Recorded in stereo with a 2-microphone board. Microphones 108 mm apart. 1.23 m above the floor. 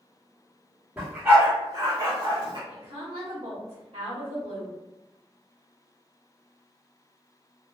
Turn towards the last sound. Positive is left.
turn(degrees=-60)  # may be behind; listen again after turning